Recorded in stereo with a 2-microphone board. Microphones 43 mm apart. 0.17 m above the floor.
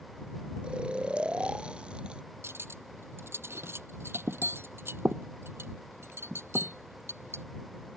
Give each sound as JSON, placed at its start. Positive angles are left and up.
{"t": 0.6, "sound": "snoring", "side_deg": -30}
{"t": 2.4, "sound": "cutlery clinking", "side_deg": -75}